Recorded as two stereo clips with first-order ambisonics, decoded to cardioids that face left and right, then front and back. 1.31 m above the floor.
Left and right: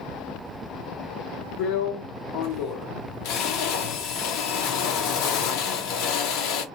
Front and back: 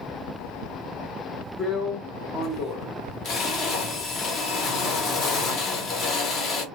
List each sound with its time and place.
1.6 s a drill: 55° left, 1.1 m